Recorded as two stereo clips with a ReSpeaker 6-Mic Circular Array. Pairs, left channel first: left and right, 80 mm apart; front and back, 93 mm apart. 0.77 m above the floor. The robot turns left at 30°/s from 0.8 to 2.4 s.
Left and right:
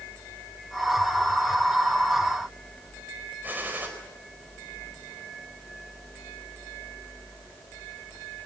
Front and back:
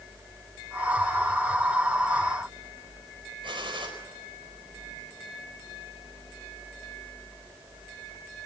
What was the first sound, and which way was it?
A gunshot, 155° right.